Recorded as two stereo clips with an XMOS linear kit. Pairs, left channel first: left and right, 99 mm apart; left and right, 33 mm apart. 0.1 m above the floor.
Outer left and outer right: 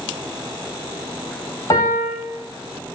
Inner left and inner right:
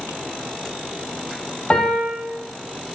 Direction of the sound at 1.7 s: 35° left (ahead or behind).